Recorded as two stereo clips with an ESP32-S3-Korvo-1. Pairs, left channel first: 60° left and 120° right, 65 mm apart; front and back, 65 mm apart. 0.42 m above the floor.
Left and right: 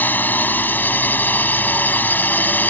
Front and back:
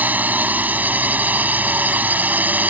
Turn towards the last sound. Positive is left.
turn(degrees=120)